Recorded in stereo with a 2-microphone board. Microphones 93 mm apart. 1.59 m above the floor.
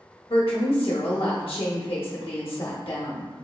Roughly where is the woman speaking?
Left.